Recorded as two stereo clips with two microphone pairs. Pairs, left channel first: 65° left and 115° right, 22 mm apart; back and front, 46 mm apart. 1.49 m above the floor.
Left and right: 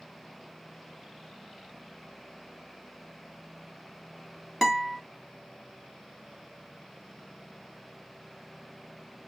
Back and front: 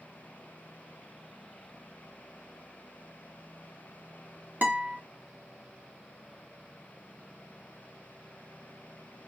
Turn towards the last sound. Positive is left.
turn(degrees=-40)